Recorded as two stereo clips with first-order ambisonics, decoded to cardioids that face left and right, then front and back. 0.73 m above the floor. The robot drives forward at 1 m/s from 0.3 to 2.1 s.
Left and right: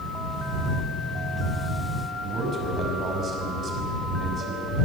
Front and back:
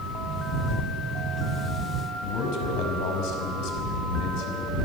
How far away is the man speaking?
About 5.5 m.